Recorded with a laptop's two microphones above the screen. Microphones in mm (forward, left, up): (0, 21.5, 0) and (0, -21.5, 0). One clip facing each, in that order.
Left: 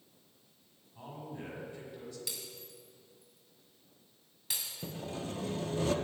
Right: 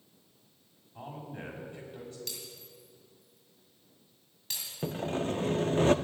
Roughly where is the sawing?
Right.